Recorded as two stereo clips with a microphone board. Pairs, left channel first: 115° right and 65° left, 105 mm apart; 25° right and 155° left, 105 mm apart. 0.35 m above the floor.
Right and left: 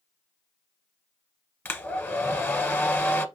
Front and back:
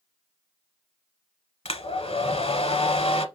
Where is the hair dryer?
40° right, 0.6 m.